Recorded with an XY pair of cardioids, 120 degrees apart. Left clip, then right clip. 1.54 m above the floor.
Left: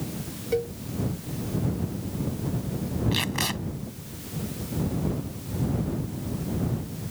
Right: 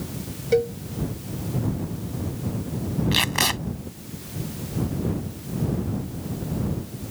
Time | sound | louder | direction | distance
0.5 | a cowbell | right 6 dB | 30° right | ?
3.1 | tape being pulled | right 7 dB | 30° right | ?